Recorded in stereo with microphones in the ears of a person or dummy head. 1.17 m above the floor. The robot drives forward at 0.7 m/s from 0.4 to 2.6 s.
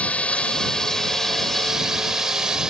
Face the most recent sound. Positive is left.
turn(degrees=-5)  # may be behind; listen again after turning